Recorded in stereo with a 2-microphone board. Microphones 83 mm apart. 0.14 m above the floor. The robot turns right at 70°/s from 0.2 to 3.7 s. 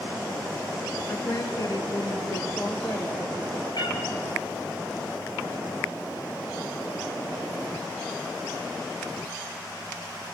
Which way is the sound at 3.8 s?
60° left (ahead or behind).